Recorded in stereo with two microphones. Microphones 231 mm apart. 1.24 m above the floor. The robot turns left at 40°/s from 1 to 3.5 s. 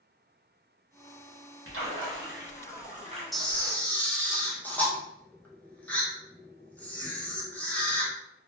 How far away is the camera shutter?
About 0.6 m.